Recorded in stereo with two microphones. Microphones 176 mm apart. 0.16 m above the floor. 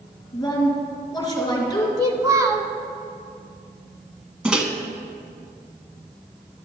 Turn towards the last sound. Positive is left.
turn(degrees=-5)  # may be behind; listen again after turning